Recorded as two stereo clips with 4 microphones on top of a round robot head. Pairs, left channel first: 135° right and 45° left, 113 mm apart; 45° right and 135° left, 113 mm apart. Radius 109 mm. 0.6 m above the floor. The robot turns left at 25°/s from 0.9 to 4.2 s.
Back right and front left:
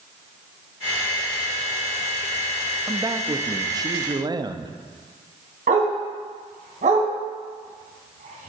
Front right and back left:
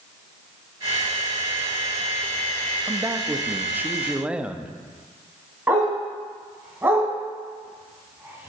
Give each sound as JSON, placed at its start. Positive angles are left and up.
{"t": 2.9, "sound": "a man speaking", "azimuth_deg": 95, "distance_m": 0.9}
{"t": 5.7, "sound": "a dog barking", "azimuth_deg": 65, "distance_m": 2.5}